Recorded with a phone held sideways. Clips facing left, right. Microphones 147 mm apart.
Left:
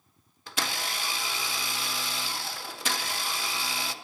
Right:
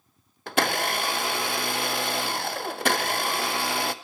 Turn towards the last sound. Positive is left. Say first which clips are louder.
# right 10 dB
turn(degrees=-60)  # may be behind; listen again after turning